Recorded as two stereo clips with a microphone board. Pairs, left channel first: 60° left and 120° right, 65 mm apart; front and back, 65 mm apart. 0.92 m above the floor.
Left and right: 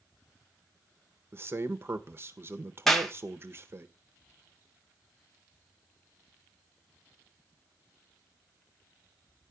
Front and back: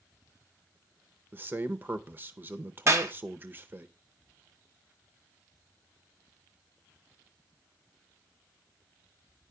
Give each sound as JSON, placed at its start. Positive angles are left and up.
{"t": 1.3, "sound": "a man speaking", "azimuth_deg": -145, "distance_m": 0.6}
{"t": 2.9, "sound": "a clap", "azimuth_deg": 145, "distance_m": 1.0}